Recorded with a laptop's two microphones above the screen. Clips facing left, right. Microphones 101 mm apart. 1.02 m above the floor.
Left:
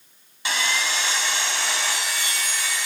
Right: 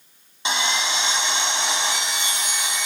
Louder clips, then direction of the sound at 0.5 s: Right 2 dB; 25° right (ahead or behind).